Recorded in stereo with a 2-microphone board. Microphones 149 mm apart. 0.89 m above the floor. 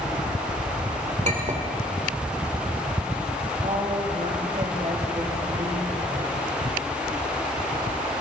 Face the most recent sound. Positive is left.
turn(degrees=-50)  # may be behind; listen again after turning